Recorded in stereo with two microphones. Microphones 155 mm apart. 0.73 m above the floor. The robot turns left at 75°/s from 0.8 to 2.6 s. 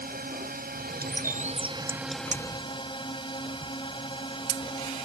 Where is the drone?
75° right; by 5.1 s 150° left.